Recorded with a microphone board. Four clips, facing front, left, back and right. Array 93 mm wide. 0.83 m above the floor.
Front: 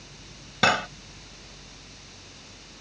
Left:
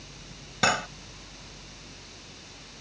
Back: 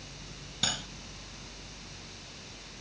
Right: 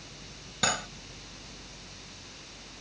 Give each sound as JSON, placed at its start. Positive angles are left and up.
{"t": 0.6, "sound": "cutlery clinking", "azimuth_deg": 20}